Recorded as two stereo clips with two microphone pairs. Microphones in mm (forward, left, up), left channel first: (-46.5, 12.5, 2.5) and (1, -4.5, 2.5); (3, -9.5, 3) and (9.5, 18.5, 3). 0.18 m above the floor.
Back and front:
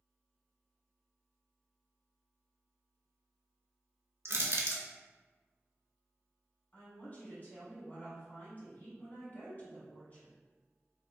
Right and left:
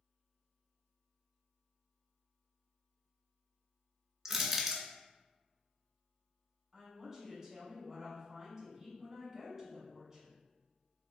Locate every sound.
4.2 s crushing: 5° left, 0.5 m
6.7 s a woman speaking: 140° left, 1.3 m